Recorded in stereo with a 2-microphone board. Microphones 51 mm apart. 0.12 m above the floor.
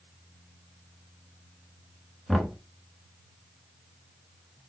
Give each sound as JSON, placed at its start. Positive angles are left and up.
{"t": 2.3, "sound": "knocking", "side_deg": 5, "distance_m": 0.7}